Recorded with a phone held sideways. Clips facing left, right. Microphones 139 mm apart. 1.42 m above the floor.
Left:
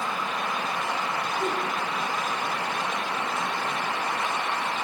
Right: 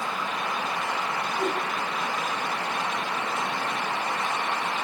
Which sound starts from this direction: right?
A whoosh, at 1.4 s.